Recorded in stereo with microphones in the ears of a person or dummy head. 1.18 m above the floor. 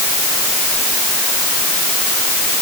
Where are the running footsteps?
I don't hear running footsteps.